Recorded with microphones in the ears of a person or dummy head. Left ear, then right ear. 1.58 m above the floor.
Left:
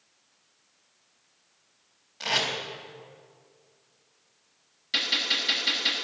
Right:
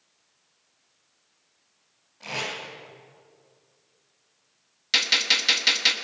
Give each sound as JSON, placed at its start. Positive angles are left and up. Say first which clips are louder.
{"t": 2.2, "sound": "tape being pulled", "louder": "left 5 dB", "side_deg": 70, "distance_m": 4.0}
{"t": 4.9, "sound": "a gunshot", "louder": "right 4 dB", "side_deg": -50, "distance_m": 1.4}